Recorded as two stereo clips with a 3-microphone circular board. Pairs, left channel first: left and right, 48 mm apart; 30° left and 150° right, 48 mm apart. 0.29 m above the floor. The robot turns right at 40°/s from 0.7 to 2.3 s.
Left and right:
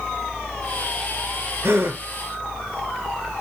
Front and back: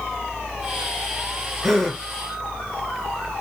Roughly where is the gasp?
Ahead right.